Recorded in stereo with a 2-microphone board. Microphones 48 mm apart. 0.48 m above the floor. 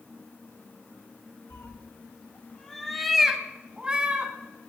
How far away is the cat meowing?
About 1.1 m.